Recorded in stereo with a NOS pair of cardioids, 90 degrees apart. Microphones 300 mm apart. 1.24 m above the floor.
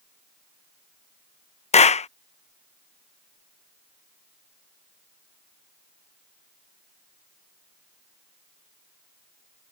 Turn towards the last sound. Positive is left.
turn(degrees=20)